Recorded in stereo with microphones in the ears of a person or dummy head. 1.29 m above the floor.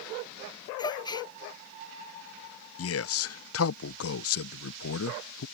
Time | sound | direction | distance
0.8 | a gasp | 20° left (ahead or behind) | ?
2.8 | a man speaking | 65° left (ahead or behind) | ?